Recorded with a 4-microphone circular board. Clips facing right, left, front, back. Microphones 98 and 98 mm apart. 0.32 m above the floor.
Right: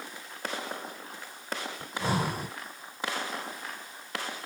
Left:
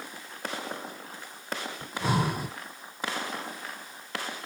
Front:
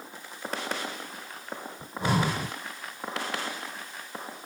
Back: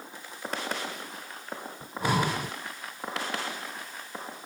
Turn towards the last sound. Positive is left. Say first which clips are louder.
# left 2 dB, even
turn(degrees=-45)